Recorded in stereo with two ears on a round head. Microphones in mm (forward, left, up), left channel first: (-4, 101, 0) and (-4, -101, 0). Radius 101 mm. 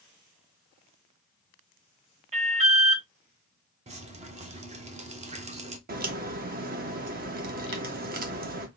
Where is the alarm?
30° right (ahead or behind), 1.8 m.